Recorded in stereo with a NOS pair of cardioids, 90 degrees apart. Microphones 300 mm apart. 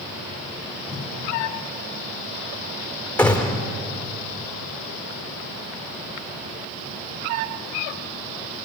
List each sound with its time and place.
0.9 s a whoosh: 20° right, 4 m
3.2 s a gunshot: 5° left, 3 m